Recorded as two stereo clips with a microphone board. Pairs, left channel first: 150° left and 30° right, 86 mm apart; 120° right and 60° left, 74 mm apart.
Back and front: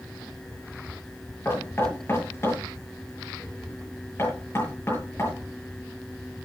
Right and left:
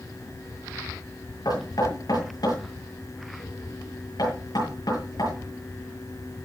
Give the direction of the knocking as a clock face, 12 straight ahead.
5 o'clock.